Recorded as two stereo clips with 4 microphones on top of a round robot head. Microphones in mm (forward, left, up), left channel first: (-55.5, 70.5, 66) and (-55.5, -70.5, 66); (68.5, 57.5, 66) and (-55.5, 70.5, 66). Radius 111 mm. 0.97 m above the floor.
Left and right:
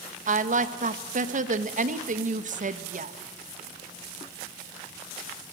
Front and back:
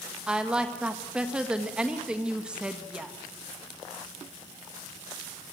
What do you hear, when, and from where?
0.3 s a woman speaking: 105° right, 1.6 m